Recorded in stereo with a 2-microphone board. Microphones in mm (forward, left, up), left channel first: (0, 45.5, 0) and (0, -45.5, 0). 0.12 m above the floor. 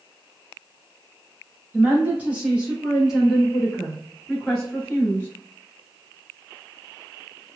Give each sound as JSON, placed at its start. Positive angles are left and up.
{"t": 1.7, "sound": "a woman speaking", "side_deg": -20, "distance_m": 1.8}